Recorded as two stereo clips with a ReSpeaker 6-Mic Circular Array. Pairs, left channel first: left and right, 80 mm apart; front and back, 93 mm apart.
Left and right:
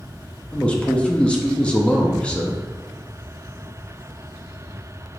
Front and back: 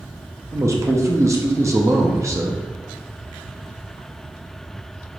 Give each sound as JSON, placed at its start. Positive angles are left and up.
{"t": 0.5, "sound": "a man speaking", "azimuth_deg": 155, "distance_m": 0.6}